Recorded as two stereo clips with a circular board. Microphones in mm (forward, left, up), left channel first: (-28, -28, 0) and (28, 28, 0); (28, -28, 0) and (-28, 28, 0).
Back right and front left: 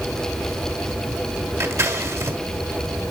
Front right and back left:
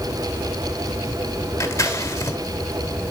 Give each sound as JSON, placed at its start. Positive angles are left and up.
{"t": 1.6, "sound": "scissors", "azimuth_deg": 0, "distance_m": 1.6}